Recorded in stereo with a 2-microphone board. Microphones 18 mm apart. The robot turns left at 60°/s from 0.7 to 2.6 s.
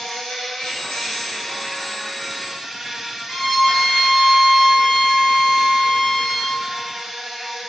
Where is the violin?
55° left (ahead or behind), 1.8 m.